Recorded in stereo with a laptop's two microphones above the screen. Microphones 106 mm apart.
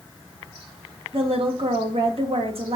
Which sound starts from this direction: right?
A woman speaking, at 1.1 s.